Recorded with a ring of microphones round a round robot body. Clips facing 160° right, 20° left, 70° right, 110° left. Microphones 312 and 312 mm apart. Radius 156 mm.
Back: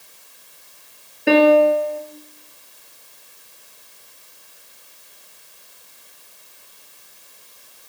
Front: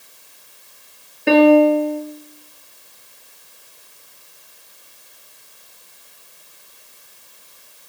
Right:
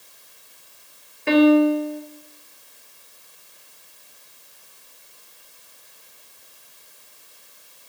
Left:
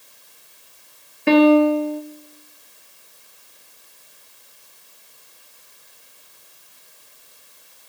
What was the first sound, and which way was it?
A piano, 115° left.